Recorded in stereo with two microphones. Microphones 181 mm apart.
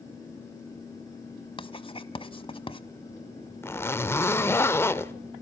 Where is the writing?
30° left (ahead or behind), 0.9 m.